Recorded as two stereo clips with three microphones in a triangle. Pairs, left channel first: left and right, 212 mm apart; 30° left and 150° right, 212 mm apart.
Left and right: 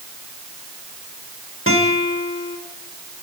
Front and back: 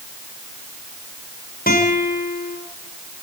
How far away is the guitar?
About 4 m.